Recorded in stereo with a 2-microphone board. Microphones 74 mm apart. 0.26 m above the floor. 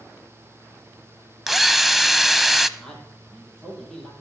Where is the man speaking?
5° left (ahead or behind), 7.5 m.